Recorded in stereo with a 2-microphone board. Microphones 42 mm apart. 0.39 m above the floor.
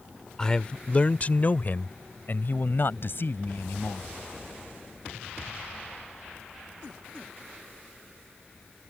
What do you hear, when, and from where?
0.4 s a man speaking: 20° left (ahead or behind); by 4.1 s 65° left (ahead or behind)